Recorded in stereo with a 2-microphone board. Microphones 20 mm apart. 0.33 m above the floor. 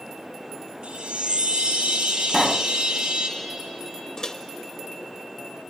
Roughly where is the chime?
Right.